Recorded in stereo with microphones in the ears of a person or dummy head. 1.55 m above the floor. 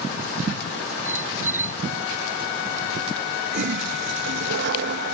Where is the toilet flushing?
60° right (ahead or behind).